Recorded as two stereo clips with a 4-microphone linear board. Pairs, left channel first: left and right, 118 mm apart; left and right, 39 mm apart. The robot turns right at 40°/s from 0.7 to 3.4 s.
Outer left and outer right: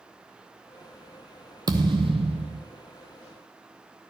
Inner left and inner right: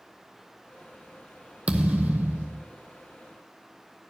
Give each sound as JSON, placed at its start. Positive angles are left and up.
{"t": 1.7, "sound": "a thud", "azimuth_deg": -145, "distance_m": 0.7}